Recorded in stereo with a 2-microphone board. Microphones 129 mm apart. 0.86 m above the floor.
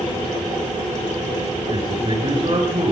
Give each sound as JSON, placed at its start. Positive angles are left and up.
{"t": 1.7, "sound": "a man speaking", "side_deg": -45, "distance_m": 5.0}